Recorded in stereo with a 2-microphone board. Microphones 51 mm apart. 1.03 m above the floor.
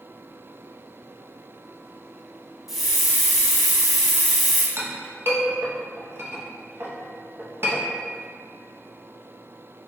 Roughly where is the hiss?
Centre.